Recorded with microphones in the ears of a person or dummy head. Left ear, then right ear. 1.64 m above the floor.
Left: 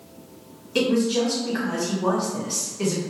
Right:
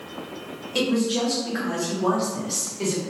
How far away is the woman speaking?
About 1.0 m.